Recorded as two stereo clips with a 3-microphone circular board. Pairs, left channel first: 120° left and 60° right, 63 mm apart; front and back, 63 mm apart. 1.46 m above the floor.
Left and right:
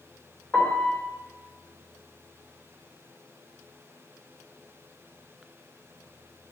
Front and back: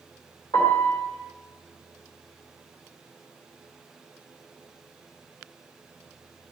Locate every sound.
0.5 s a piano: 45° left, 3 m